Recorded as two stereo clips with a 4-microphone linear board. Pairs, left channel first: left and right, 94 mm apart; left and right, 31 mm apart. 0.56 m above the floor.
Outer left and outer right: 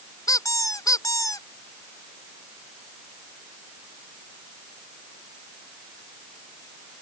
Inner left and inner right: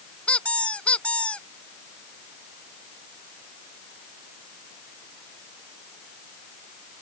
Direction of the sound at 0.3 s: 40° left (ahead or behind).